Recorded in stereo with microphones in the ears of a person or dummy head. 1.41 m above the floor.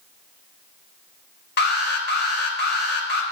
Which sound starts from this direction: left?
An alarm, at 1.6 s.